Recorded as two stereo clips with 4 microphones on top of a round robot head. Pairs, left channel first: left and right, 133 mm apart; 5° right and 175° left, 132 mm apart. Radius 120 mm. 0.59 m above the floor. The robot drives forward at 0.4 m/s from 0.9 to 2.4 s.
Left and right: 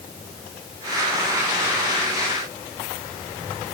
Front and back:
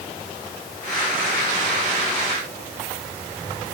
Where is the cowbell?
No cowbell in this recording.